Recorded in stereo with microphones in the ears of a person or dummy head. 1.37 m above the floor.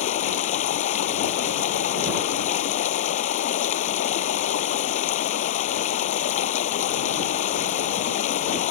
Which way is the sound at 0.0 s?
50° left (ahead or behind).